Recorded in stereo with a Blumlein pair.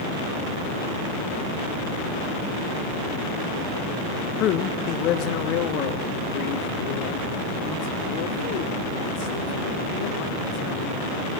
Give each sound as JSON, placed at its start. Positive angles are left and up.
{"t": 4.4, "sound": "a man speaking", "azimuth_deg": 35, "distance_m": 0.9}